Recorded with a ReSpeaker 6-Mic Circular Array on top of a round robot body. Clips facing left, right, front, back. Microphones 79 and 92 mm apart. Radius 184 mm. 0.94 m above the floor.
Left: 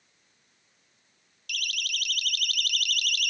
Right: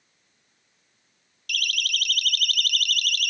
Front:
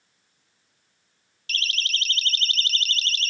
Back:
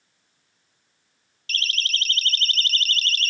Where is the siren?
125° right; by 3.3 s 135° right.